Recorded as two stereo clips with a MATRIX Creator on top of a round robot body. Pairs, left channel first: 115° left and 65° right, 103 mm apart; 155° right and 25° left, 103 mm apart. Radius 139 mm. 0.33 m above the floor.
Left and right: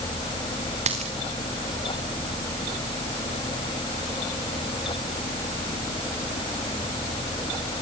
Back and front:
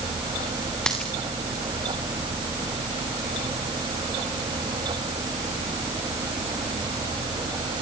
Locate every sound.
0.9 s a dropped coin: 75° right, 4 m